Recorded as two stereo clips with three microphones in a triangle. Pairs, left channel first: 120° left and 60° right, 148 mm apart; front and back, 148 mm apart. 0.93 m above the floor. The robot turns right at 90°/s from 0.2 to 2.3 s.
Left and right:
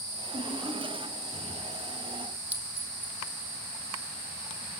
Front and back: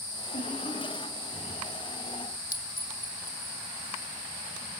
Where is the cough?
5° right, 8.5 m; by 1.7 s 120° left, 8.5 m.